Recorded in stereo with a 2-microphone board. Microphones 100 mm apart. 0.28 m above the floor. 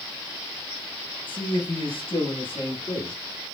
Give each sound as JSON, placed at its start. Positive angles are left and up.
{"t": 1.3, "sound": "a man speaking", "side_deg": 65, "distance_m": 3.0}